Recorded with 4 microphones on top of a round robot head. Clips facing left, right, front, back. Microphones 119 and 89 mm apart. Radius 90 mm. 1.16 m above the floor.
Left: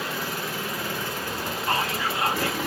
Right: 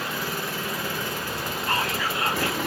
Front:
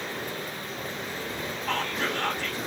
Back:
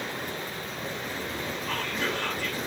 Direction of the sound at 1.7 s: 30° left.